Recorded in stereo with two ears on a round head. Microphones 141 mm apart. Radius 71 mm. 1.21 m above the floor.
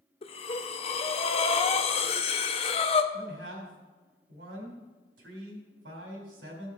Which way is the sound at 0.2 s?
40° left (ahead or behind).